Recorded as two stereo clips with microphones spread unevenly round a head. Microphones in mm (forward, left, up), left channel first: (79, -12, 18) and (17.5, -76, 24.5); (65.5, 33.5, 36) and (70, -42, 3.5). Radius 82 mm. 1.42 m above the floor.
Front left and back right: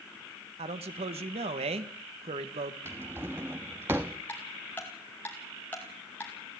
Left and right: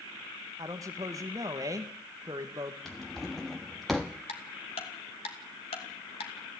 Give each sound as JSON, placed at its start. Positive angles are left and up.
{"t": 0.6, "sound": "a man speaking", "azimuth_deg": -140, "distance_m": 1.7}
{"t": 2.9, "sound": "a drawer", "azimuth_deg": 160, "distance_m": 1.0}
{"t": 4.3, "sound": "ticking", "azimuth_deg": 125, "distance_m": 2.5}